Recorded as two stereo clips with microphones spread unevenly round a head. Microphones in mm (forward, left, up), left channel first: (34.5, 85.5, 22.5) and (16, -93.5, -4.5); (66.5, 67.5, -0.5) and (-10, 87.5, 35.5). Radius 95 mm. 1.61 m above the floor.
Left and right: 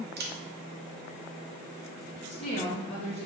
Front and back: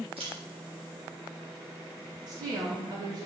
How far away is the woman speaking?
About 1.7 m.